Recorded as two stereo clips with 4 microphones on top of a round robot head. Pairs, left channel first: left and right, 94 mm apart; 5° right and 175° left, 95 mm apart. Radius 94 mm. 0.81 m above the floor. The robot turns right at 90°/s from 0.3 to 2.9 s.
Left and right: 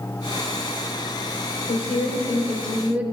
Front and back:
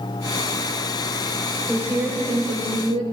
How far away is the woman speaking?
About 3.5 m.